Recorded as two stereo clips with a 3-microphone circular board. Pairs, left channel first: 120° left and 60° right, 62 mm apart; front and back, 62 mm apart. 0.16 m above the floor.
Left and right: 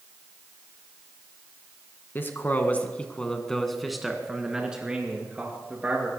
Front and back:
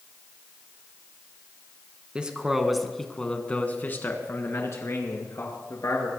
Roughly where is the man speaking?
Behind left.